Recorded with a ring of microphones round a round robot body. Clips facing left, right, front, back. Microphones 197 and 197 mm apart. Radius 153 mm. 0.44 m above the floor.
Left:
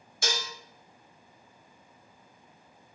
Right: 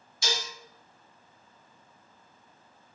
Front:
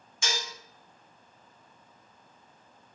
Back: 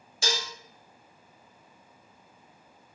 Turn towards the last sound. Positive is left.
turn(degrees=125)